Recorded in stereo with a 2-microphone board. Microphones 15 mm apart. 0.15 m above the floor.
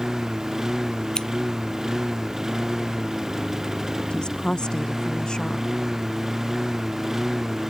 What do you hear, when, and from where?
0.0 s a lawn mower: 40° right (ahead or behind); by 7.7 s 30° right (ahead or behind)
1.1 s scissors: 65° left (ahead or behind)
4.1 s a woman speaking: 75° left (ahead or behind)